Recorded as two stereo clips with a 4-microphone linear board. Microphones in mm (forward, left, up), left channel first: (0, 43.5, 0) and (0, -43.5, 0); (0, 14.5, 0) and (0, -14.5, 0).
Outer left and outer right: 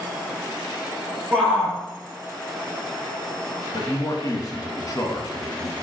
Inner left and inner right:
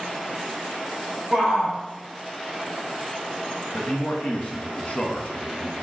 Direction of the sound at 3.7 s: 45° left (ahead or behind).